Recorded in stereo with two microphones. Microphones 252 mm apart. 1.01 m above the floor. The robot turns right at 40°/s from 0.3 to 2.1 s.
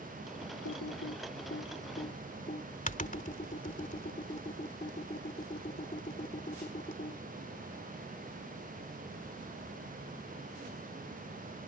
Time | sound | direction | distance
0.7 | typing on a keyboard | 85° left | ?